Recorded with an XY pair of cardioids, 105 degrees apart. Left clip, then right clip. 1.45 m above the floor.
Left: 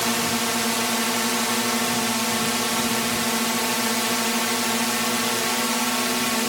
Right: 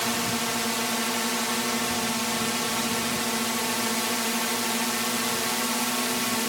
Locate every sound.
0.0 s a drone: 25° left